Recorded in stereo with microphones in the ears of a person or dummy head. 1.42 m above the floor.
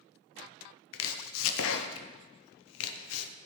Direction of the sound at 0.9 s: 75° left (ahead or behind).